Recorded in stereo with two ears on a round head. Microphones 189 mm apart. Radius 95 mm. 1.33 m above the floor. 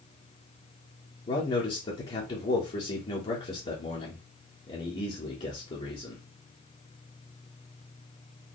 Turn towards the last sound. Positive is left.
turn(degrees=30)  # may be behind; listen again after turning